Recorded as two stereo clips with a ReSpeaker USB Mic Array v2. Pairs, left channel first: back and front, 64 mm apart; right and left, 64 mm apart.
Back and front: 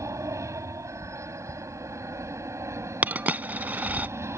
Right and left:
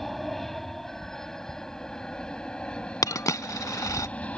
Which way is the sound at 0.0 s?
5° right.